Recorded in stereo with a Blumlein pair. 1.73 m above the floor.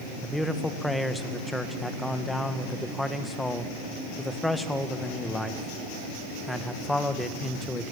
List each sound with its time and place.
0.2 s a man speaking: 5° left, 1.9 m